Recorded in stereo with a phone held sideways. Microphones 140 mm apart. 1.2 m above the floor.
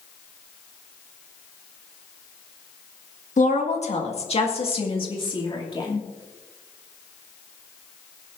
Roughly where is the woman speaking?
Left.